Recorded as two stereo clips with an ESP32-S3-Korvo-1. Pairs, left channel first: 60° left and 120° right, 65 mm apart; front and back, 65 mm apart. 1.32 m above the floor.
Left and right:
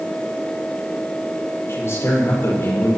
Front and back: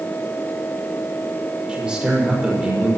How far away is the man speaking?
About 6 m.